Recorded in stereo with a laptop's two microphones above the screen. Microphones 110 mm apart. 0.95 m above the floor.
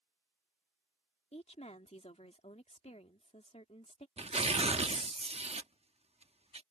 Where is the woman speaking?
80° left.